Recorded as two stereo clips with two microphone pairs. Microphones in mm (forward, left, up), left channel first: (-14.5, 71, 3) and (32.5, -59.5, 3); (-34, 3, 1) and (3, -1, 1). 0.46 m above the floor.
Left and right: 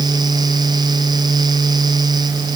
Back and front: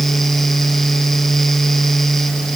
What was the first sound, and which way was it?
Only background noise.